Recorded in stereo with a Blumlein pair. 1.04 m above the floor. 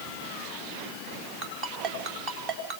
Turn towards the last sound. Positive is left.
turn(degrees=-40)